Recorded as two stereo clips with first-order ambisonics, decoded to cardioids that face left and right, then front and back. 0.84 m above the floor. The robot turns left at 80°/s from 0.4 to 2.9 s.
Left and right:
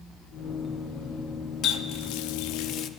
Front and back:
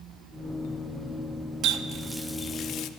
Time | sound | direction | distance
1.6 | a running tap | 140° left | 0.5 m